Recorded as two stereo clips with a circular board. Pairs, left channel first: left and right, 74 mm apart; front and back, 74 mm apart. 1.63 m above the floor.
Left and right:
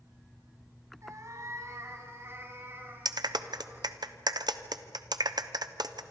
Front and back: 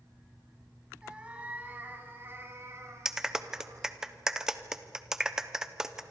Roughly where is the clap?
Right.